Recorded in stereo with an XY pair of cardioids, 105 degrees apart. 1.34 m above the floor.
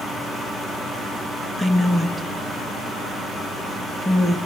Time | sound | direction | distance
1.6 | a woman speaking | straight ahead | 1.7 m